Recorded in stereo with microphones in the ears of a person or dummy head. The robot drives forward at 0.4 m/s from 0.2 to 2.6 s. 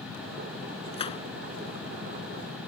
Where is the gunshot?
30° left (ahead or behind).